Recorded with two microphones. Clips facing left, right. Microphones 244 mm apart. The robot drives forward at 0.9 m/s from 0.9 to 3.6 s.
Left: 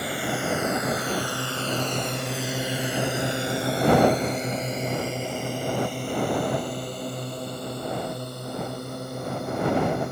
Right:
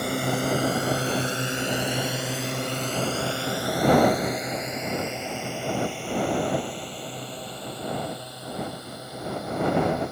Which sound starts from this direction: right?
A drone, at 0.0 s.